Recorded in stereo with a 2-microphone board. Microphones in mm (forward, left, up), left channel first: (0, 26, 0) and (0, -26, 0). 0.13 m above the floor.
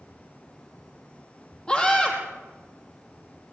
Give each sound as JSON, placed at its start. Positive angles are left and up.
{"t": 1.7, "sound": "a scream", "side_deg": 15, "distance_m": 4.5}